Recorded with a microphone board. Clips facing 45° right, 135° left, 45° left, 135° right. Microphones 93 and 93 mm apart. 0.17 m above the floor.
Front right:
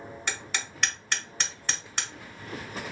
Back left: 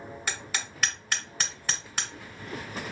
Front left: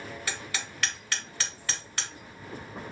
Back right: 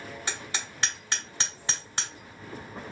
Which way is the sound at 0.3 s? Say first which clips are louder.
Front right 1 dB, back right 1 dB; 145° right.